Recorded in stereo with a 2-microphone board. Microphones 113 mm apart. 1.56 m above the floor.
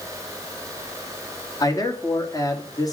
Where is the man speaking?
35° left (ahead or behind), 3 m.